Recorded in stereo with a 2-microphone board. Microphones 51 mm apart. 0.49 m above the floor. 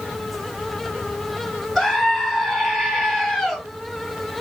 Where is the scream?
Centre (ahead or behind), 8 m.